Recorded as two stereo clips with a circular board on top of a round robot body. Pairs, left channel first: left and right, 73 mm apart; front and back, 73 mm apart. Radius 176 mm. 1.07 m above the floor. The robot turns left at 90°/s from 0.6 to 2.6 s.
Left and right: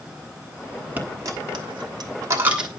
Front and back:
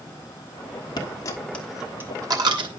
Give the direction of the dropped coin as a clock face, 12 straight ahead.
1 o'clock.